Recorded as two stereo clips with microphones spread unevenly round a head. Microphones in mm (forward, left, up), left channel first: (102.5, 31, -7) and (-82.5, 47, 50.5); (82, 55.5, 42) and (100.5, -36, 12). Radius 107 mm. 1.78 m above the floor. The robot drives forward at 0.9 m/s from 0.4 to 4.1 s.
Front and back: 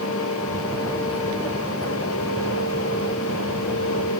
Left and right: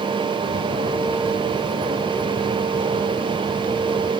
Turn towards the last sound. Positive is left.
No sound to turn to.